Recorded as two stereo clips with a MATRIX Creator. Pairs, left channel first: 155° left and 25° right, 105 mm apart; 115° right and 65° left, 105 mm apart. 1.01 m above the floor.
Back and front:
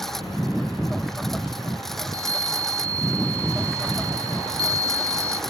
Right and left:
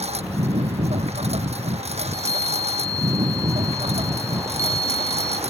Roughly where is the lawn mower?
Left.